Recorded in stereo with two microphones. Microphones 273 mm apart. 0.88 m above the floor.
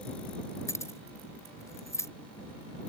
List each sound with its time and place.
0.7 s keys jangling: 10° left (ahead or behind)